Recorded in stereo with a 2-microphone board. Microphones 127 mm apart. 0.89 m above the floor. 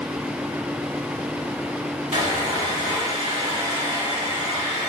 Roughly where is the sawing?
Right.